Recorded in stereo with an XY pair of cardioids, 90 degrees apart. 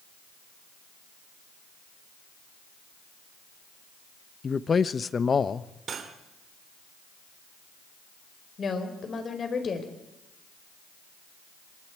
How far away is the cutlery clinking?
About 2.5 m.